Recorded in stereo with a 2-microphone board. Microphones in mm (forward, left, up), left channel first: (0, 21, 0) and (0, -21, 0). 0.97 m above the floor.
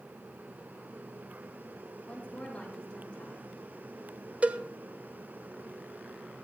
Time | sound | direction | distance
2.0 | a woman speaking | 25° left (ahead or behind) | 5.5 m
4.4 | a cowbell | 35° right (ahead or behind) | 1.0 m